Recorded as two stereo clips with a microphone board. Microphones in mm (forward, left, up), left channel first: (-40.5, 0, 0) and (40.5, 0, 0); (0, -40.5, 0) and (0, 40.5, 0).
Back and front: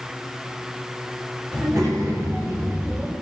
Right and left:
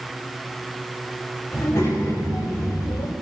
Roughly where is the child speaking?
Ahead right.